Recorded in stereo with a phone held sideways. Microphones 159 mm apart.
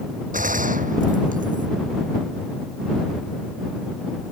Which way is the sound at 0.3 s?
55° right (ahead or behind).